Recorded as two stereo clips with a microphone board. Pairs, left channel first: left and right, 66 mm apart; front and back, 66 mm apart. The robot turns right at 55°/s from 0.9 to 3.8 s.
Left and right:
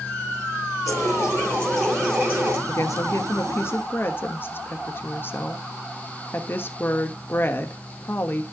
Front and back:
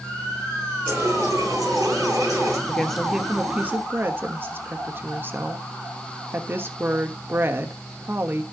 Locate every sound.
0.8 s a running tap: 125° left, 9.5 m; by 2.6 s 140° right, 9.5 m
2.7 s a woman speaking: 75° left, 1.3 m; by 8.4 s 135° left, 1.3 m